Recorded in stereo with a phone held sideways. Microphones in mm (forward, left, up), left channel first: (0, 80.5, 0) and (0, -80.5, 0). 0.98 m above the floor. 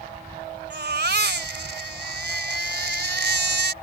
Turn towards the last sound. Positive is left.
turn(degrees=-85)